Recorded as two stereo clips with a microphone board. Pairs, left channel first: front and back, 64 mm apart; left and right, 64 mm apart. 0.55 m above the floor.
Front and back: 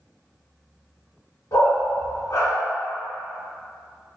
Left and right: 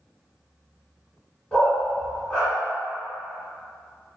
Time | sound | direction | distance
1.5 | a dog barking | 15° left | 1.5 m